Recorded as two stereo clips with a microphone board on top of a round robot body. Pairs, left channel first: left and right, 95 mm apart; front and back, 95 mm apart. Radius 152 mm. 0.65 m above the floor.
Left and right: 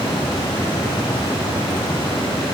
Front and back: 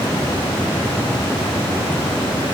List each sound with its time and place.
Only background noise.